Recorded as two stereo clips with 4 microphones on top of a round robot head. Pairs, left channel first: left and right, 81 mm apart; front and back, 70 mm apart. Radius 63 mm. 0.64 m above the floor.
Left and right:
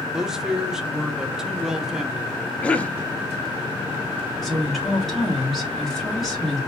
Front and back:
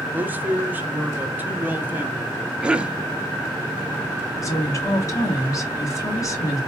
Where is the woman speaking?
Straight ahead, 1.4 m.